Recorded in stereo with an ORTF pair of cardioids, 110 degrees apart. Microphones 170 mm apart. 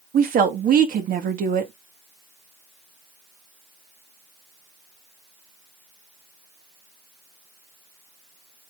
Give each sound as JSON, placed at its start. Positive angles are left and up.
{"t": 0.1, "sound": "a woman speaking", "azimuth_deg": -50, "distance_m": 1.8}